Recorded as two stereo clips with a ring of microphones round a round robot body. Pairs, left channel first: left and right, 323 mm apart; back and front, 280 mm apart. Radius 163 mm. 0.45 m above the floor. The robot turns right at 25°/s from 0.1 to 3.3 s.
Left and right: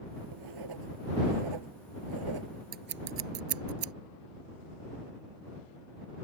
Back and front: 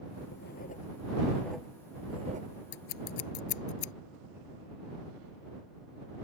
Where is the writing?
120° right; by 2.5 s 65° right.